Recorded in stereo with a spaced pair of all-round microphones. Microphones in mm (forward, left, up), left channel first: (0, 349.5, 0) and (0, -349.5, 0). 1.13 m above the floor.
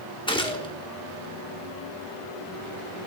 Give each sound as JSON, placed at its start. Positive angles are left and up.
{"t": 0.3, "sound": "a gunshot", "side_deg": 5, "distance_m": 1.4}